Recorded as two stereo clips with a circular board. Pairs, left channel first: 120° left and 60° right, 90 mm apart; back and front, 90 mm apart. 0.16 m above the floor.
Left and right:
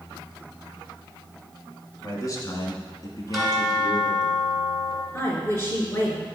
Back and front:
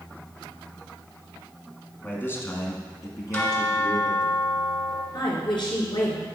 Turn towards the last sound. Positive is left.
turn(degrees=180)